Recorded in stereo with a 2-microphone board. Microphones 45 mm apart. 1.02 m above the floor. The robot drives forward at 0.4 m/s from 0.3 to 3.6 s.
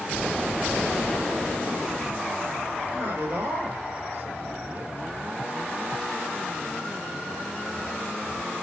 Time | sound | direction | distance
2.9 | a man speaking | 60° right (ahead or behind) | 6 m